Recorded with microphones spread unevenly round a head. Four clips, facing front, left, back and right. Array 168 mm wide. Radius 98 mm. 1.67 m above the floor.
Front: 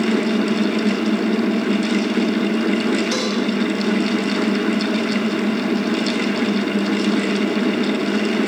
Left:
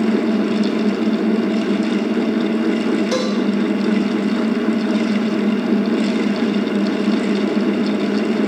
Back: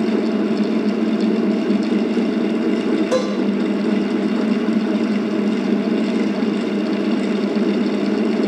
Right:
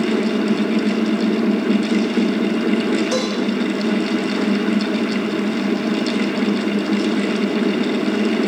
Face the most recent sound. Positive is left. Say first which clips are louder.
# left 1 dB, back 4 dB
turn(degrees=170)